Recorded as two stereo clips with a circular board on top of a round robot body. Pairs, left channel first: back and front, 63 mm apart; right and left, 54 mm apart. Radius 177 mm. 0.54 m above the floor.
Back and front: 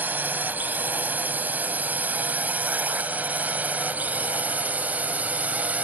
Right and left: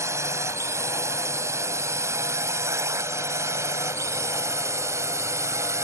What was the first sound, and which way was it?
A drone, 65° left.